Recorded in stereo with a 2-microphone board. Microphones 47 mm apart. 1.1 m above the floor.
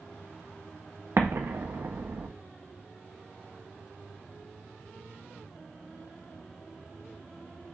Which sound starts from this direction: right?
An explosion, at 1.2 s.